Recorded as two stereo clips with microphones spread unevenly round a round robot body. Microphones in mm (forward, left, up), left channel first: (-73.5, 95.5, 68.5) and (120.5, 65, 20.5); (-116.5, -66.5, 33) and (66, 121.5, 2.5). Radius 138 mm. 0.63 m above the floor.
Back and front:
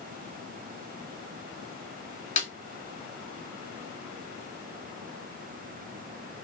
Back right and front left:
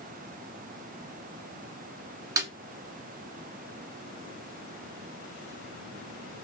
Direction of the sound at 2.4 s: 125° left.